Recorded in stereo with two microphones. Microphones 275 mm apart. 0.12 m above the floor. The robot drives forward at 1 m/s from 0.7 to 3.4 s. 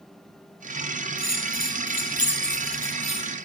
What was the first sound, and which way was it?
A bell, 70° left (ahead or behind).